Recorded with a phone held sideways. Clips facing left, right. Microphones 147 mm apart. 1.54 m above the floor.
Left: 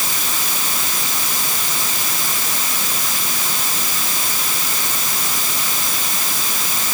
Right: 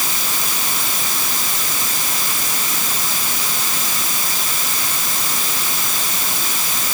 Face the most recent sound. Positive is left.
No sound to turn to.